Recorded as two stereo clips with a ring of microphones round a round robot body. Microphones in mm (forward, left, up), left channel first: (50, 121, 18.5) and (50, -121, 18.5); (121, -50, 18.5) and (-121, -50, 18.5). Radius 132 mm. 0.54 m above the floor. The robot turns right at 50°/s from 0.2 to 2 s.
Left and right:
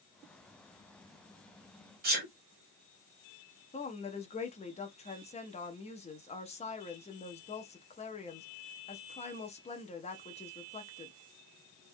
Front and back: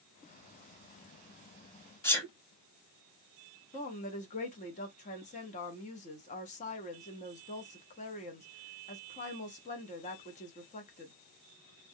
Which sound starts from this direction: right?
A sneeze, at 2.0 s.